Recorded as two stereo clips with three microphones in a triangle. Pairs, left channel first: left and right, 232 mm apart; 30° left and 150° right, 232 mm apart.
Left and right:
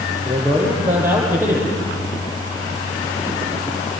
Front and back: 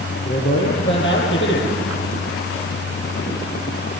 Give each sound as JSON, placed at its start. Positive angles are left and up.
{"t": 0.2, "sound": "a man speaking", "azimuth_deg": -10, "distance_m": 9.5}